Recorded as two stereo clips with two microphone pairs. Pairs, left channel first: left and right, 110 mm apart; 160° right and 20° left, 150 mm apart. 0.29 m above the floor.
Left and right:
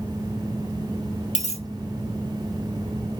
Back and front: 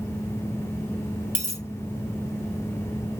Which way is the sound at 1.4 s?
95° left.